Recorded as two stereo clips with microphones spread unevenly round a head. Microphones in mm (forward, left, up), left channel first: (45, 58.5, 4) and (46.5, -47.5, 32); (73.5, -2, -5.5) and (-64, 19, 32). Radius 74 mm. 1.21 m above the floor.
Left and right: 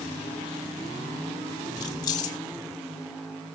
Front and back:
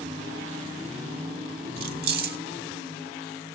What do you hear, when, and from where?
1.8 s keys jangling: 155° left, 1.3 m